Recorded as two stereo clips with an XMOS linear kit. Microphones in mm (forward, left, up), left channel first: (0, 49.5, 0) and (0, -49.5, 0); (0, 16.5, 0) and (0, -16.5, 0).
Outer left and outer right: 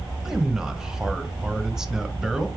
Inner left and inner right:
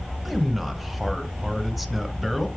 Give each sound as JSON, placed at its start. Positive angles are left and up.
{"t": 0.2, "sound": "a man speaking", "side_deg": -5, "distance_m": 0.8}